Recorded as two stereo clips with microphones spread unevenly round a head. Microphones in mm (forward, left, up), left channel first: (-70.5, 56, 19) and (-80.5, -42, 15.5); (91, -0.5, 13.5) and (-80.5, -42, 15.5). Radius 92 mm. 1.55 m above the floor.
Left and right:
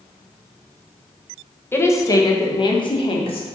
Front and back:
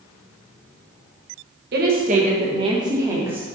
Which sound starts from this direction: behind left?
A woman speaking, at 1.7 s.